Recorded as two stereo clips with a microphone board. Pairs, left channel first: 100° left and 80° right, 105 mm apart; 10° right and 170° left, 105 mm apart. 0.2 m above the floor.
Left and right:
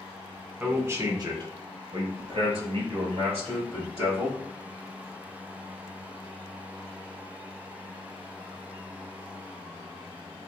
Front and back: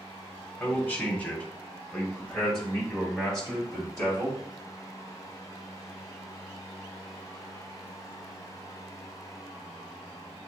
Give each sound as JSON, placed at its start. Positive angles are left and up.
{"t": 0.6, "sound": "a man speaking", "azimuth_deg": -30, "distance_m": 1.1}